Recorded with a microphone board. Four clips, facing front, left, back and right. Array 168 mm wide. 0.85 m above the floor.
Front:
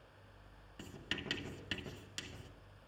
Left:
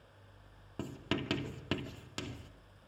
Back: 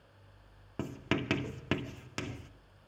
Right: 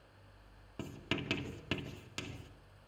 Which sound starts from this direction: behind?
Writing, at 0.8 s.